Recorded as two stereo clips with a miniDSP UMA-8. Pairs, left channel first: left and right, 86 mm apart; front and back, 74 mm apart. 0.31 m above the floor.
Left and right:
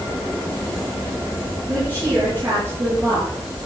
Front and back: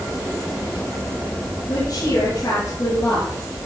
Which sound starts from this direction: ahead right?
A woman speaking, at 1.7 s.